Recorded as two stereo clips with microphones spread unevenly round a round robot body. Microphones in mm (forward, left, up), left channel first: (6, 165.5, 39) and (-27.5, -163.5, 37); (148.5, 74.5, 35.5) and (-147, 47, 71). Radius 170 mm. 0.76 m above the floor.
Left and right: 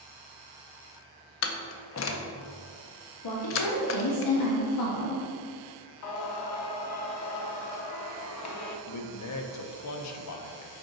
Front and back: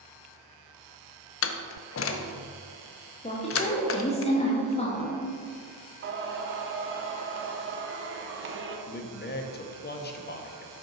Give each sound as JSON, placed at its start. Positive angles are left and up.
{"t": 1.4, "sound": "a door slam", "azimuth_deg": 40, "distance_m": 0.5}
{"t": 3.2, "sound": "a woman speaking", "azimuth_deg": 70, "distance_m": 1.0}
{"t": 6.0, "sound": "singing", "azimuth_deg": 130, "distance_m": 0.8}
{"t": 8.9, "sound": "a man speaking", "azimuth_deg": 55, "distance_m": 0.7}